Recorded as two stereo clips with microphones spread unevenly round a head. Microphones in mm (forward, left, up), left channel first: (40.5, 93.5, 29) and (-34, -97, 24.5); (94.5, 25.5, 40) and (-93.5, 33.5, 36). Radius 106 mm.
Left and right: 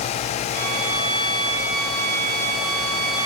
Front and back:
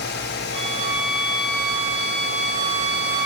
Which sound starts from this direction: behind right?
A violin, at 0.5 s.